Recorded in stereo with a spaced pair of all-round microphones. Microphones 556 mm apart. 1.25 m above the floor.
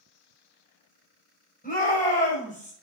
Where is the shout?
15° left (ahead or behind), 5.5 m.